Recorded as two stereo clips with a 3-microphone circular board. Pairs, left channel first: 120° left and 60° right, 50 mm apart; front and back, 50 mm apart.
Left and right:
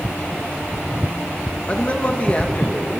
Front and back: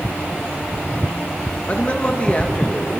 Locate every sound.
1.7 s a man speaking: 60° left, 2.0 m